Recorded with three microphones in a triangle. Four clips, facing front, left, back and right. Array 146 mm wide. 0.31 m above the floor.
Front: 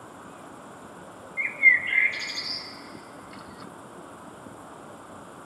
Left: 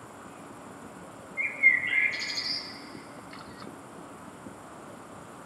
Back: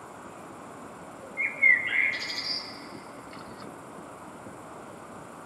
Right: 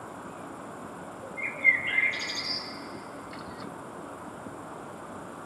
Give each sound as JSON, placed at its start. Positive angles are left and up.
{"t": 1.4, "sound": "a bird", "azimuth_deg": -165, "distance_m": 1.1}